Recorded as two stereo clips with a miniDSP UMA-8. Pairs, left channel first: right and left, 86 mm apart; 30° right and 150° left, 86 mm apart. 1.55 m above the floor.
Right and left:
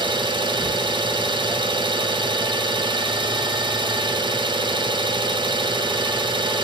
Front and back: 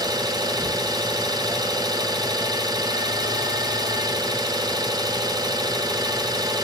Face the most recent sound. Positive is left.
turn(degrees=110)